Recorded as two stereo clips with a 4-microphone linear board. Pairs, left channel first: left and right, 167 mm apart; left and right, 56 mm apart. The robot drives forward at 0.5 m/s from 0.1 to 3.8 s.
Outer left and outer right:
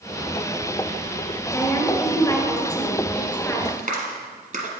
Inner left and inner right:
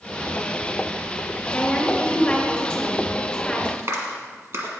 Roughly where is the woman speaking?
Centre.